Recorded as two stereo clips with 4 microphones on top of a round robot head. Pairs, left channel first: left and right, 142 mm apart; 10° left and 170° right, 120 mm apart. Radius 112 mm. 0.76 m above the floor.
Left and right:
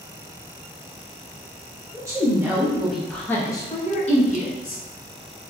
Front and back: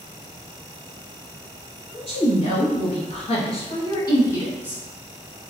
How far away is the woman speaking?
About 1.6 m.